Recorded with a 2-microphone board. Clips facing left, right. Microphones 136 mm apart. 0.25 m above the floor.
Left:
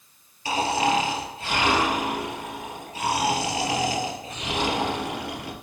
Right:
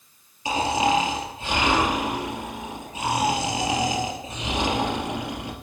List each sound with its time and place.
0.5 s snoring: 20° right (ahead or behind), 2.5 m